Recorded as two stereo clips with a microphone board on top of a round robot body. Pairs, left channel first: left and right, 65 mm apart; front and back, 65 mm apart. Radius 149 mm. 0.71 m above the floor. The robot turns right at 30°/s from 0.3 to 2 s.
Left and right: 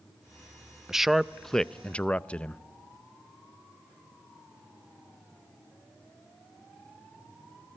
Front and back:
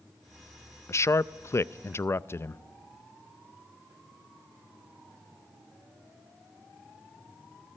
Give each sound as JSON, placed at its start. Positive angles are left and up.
{"t": 0.9, "sound": "a man speaking", "azimuth_deg": -10, "distance_m": 0.6}